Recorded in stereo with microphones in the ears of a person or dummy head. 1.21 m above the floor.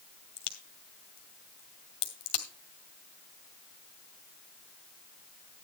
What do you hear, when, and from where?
0.4 s a crack: 30° left (ahead or behind), 1.9 m